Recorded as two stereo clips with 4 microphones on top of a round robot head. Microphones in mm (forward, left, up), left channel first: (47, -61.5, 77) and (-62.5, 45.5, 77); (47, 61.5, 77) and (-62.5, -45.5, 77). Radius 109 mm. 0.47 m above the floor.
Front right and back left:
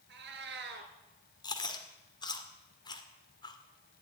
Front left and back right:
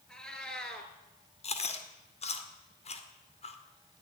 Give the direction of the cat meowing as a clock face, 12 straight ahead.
8 o'clock.